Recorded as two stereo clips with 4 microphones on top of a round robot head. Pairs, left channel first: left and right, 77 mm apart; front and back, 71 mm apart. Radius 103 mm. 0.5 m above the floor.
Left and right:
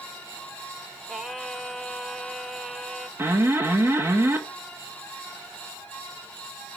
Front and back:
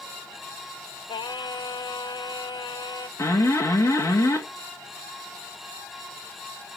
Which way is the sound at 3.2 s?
35° right.